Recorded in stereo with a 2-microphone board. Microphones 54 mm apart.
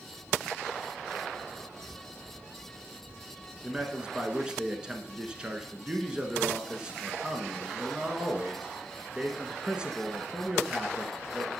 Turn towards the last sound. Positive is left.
turn(degrees=-15)  # may be behind; listen again after turning